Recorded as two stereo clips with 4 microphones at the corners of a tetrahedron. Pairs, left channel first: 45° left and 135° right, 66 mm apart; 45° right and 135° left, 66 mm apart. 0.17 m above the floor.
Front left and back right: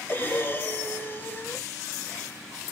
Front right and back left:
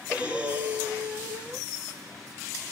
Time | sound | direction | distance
0.1 | breathing | 80° left | 0.6 m